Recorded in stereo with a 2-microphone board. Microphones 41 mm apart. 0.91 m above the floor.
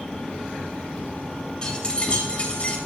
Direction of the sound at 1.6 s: 20° left (ahead or behind).